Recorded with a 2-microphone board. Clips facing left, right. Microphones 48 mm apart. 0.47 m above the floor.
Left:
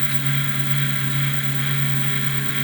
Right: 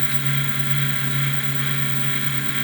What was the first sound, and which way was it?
Only background noise.